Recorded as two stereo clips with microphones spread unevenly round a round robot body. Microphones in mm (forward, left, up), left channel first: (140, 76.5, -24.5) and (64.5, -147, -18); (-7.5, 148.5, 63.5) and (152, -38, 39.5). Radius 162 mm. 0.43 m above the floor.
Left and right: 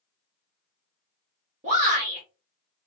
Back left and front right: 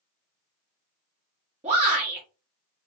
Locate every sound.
1.6 s a shout: 70° right, 1.1 m